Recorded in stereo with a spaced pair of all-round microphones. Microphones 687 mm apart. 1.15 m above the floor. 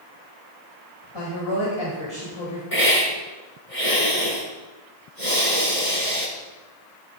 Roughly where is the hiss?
Left.